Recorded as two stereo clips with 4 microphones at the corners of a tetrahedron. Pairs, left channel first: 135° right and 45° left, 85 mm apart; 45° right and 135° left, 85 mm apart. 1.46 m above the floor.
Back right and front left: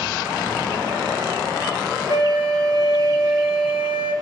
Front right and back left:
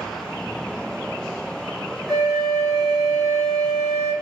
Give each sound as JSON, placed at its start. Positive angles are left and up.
{"t": 2.1, "sound": "a flute", "azimuth_deg": -125, "distance_m": 1.9}